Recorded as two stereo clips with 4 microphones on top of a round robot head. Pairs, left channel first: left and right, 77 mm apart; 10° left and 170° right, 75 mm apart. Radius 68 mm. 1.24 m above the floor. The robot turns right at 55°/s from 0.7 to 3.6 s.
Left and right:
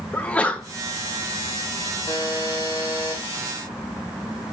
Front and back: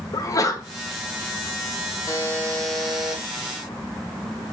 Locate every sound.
0.1 s a sneeze: 20° left, 0.8 m
2.1 s a buzzer: 55° left, 1.3 m; by 3.2 s 120° left, 1.3 m